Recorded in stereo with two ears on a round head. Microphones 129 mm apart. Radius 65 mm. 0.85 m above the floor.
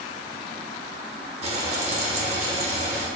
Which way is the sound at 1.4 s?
45° right (ahead or behind).